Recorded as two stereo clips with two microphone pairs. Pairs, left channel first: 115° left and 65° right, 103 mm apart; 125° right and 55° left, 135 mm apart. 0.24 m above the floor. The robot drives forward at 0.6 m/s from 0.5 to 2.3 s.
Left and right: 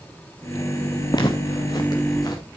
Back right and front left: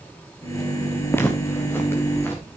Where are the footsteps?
160° left, 1.3 m.